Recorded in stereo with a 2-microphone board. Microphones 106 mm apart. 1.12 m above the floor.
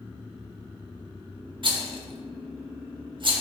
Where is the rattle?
50° right (ahead or behind), 1.4 m.